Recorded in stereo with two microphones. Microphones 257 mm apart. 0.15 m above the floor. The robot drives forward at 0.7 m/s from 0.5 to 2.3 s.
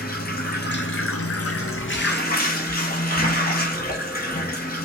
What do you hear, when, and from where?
0.0 s running water: 40° left (ahead or behind), 0.8 m